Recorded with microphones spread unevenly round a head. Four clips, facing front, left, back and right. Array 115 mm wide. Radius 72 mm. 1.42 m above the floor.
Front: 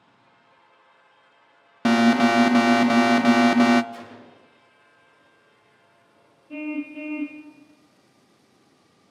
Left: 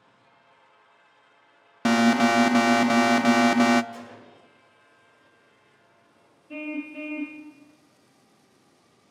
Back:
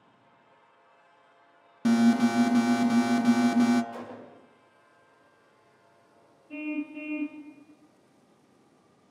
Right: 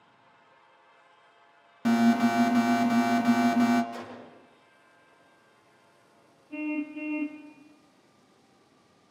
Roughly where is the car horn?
Left.